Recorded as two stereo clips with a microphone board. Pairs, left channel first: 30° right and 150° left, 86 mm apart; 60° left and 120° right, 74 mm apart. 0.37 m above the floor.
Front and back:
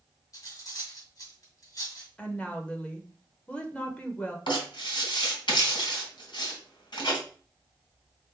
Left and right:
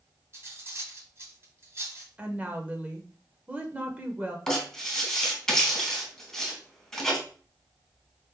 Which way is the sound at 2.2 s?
80° right.